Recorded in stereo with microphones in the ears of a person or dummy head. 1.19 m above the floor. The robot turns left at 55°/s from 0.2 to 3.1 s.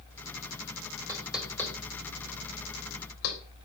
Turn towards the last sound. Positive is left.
turn(degrees=85)